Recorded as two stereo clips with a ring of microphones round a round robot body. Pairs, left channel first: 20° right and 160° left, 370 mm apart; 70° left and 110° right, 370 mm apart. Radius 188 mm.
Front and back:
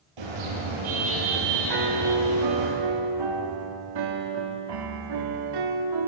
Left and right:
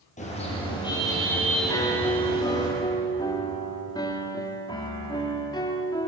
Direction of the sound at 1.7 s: 145° left.